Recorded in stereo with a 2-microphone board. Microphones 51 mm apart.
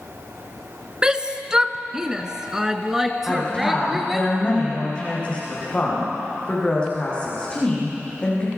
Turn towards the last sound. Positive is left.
turn(degrees=20)  # may be behind; listen again after turning